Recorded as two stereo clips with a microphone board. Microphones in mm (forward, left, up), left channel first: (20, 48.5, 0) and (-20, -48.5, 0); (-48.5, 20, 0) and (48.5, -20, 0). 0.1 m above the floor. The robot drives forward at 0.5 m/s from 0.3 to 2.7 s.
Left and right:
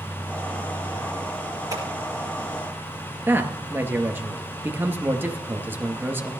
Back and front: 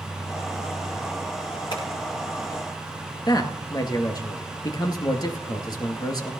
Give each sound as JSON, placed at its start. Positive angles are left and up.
{"t": 1.7, "sound": "scissors", "azimuth_deg": -165, "distance_m": 5.5}
{"t": 3.3, "sound": "a man speaking", "azimuth_deg": -175, "distance_m": 1.9}